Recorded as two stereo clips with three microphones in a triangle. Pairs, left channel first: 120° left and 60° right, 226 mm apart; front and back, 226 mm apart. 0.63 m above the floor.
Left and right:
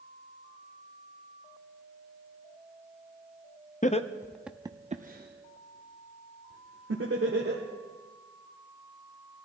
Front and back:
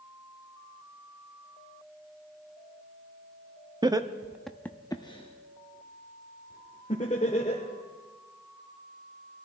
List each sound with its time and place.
3.8 s laughter: 125° left, 0.6 m; by 7.6 s 55° right, 2.0 m